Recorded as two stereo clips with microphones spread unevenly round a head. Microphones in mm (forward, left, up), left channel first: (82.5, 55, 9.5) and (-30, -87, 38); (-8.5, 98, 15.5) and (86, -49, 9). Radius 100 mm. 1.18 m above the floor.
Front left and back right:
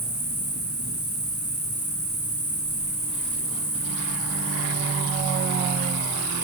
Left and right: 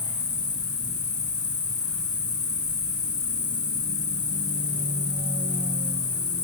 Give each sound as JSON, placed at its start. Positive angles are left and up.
{"t": 0.0, "sound": "an insect", "azimuth_deg": 100, "distance_m": 10.0}